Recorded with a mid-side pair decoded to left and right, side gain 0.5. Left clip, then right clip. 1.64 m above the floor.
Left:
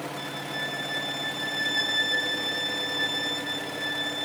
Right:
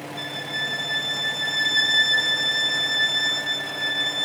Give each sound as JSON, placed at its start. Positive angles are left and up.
{"t": 0.2, "sound": "a violin", "azimuth_deg": -55, "distance_m": 1.2}